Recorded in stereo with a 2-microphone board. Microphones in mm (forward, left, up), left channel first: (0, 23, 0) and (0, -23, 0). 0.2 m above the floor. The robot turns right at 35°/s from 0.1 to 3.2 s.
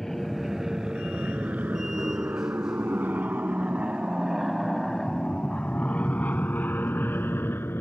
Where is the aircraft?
10° left (ahead or behind); by 7.8 s 55° left (ahead or behind).